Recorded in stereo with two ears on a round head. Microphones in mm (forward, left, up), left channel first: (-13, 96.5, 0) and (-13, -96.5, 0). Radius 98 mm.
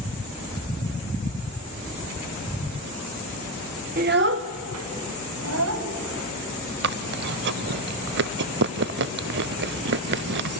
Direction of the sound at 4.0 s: 40° right (ahead or behind).